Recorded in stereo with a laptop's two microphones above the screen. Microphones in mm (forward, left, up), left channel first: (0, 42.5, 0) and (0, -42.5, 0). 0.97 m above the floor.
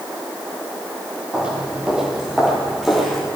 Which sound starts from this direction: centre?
Footsteps, at 1.3 s.